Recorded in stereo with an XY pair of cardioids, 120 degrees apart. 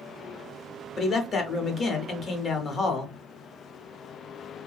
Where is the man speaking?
40° left, 0.9 m.